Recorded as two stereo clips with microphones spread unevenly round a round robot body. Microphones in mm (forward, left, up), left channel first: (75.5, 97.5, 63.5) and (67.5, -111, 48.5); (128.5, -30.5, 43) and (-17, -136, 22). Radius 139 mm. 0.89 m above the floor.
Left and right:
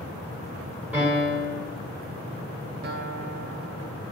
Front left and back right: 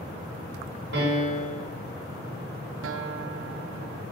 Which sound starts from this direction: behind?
A piano, at 0.9 s.